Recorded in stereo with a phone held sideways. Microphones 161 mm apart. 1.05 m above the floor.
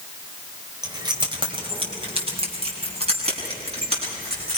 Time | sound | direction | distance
0.8 | keys jangling | 25° right (ahead or behind) | 3 m